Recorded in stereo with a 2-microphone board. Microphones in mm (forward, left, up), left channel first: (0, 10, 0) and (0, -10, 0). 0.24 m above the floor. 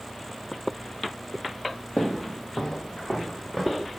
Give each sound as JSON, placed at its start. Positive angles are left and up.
{"t": 2.0, "sound": "footsteps", "side_deg": 70, "distance_m": 0.5}